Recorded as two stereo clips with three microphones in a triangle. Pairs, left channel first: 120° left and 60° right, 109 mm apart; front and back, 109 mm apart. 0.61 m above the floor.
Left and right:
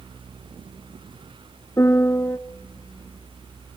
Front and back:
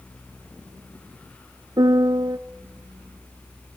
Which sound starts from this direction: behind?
A piano, at 1.8 s.